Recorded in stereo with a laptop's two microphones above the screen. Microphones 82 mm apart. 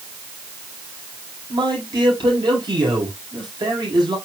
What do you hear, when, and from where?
1.5 s a man speaking: 70° right (ahead or behind), 5 m